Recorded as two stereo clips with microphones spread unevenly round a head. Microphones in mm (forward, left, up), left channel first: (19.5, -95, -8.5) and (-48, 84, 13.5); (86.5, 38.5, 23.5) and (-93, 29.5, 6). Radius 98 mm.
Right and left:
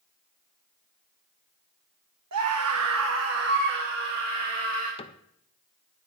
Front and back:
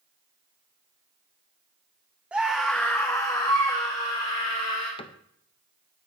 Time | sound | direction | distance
2.3 | a scream | 100° left | 1.6 m
5.0 | a cupboard door | 50° right | 0.6 m